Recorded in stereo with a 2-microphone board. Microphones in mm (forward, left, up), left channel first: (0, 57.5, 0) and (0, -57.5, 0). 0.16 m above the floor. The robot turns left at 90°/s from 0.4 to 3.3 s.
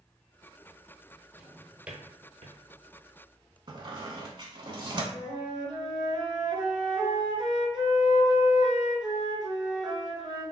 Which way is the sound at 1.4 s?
30° left (ahead or behind).